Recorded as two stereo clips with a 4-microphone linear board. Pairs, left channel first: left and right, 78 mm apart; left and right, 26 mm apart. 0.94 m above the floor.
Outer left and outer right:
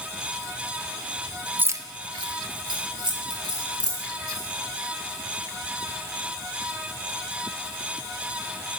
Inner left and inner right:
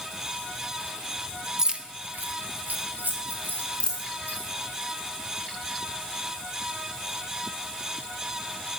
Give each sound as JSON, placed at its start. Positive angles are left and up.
{"t": 1.6, "sound": "keys jangling", "side_deg": -20, "distance_m": 0.6}
{"t": 3.8, "sound": "a dropped coin", "side_deg": 25, "distance_m": 3.5}